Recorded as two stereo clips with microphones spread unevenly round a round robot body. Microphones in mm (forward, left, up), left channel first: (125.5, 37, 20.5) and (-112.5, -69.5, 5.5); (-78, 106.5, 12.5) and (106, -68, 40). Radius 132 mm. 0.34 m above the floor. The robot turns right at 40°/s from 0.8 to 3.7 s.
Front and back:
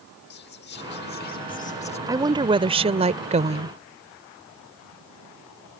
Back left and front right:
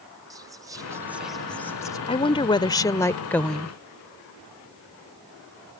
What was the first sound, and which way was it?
Whispering, 35° left.